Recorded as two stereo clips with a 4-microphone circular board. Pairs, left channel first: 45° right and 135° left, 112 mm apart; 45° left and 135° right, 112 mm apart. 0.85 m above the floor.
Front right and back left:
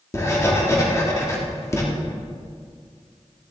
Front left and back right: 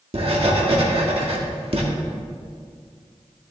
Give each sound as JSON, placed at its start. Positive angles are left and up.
{"t": 0.1, "sound": "writing", "azimuth_deg": -105, "distance_m": 1.5}